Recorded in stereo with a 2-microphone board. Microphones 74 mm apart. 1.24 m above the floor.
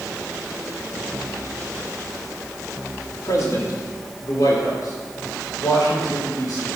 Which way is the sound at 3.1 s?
55° left (ahead or behind).